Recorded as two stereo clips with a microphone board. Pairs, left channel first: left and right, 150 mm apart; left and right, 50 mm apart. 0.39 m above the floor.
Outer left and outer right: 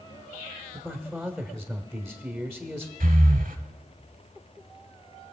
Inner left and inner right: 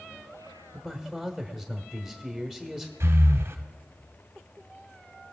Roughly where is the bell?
I don't hear a bell.